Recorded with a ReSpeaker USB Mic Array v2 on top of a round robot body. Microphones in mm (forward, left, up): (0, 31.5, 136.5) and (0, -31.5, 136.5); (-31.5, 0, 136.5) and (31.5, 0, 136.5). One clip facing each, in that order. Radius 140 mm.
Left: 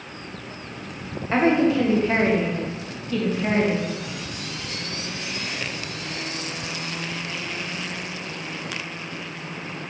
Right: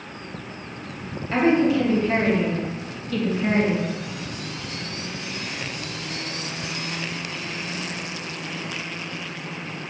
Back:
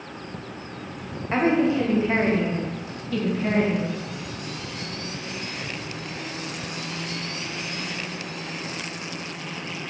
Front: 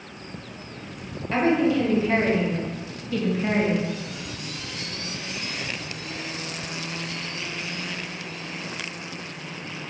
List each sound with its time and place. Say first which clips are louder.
1.3 s a woman speaking: even, even; 130° left, 1.3 m; by 3.9 s 15° right, 1.0 m